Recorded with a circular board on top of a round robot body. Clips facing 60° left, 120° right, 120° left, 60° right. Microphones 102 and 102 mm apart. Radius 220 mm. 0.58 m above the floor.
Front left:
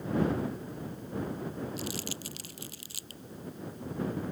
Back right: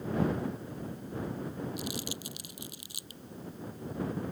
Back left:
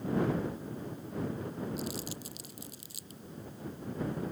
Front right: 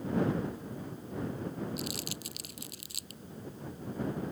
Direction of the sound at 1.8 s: 50° right.